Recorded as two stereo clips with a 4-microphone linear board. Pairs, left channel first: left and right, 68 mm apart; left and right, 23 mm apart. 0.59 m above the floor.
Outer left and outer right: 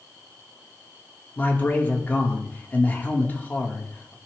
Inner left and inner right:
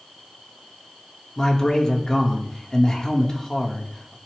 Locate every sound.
1.4 s a man speaking: 25° left (ahead or behind), 1.3 m